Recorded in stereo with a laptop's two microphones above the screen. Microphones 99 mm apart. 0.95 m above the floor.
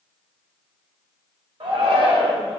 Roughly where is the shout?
Right.